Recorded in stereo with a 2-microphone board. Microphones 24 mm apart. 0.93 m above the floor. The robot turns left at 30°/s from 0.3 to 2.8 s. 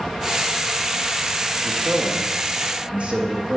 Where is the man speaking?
65° right (ahead or behind), 1.5 m; by 3.6 s 55° right (ahead or behind), 1.5 m.